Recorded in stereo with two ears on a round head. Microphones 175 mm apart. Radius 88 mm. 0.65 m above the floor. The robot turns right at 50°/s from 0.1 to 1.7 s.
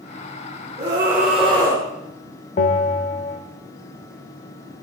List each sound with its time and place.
0.8 s a scream: 30° right, 1.6 m; by 1.9 s 15° left, 1.6 m
2.6 s a bell: 40° left (ahead or behind), 1.0 m